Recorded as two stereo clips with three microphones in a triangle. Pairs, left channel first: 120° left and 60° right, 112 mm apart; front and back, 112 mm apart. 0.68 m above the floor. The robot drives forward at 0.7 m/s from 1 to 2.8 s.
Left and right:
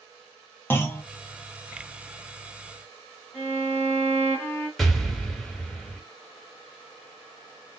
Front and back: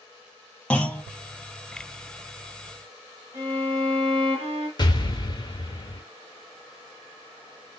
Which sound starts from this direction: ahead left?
An explosion, at 4.8 s.